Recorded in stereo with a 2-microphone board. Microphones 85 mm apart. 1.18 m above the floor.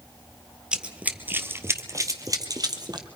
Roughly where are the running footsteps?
Centre.